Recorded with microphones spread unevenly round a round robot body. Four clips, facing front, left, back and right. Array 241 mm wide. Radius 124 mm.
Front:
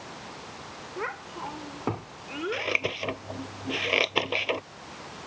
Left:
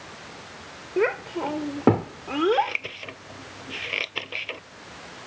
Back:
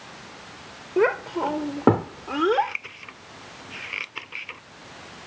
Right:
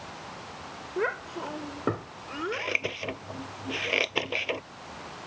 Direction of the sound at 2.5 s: 25° right.